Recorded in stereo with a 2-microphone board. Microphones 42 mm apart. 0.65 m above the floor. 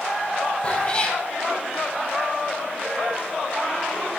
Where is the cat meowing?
25° left (ahead or behind), 4 m.